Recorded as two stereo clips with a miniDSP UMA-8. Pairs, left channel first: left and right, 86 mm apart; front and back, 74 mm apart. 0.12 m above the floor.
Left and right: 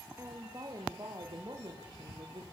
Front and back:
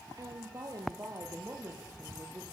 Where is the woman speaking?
150° right, 3 m; by 2.4 s 120° right, 4 m.